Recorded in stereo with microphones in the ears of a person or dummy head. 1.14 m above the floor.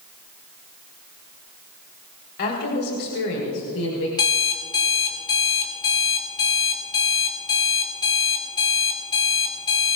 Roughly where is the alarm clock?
Left.